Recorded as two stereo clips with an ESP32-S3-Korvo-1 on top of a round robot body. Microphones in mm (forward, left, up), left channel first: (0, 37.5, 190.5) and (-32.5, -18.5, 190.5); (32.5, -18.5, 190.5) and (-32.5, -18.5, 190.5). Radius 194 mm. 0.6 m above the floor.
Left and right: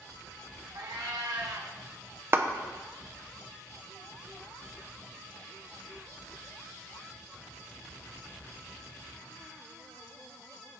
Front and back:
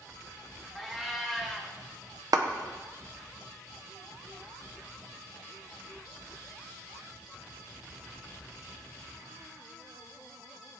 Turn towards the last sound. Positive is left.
turn(degrees=-170)